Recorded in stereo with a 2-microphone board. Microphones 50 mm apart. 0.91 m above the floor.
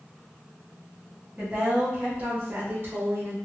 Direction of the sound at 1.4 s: 30° right (ahead or behind).